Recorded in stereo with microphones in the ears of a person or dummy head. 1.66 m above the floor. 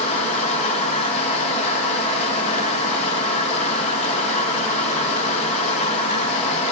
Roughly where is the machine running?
Left.